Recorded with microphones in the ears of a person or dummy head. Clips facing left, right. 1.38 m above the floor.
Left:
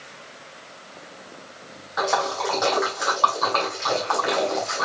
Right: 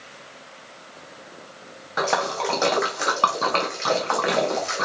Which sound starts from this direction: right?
A splash, at 2.0 s.